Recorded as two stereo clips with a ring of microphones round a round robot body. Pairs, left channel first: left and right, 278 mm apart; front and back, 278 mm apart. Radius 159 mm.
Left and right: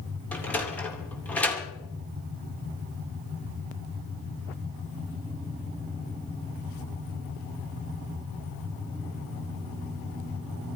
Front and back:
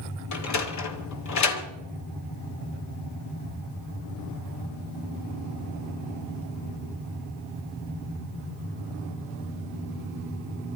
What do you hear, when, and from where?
0.3 s a sliding door: 5° left, 2.5 m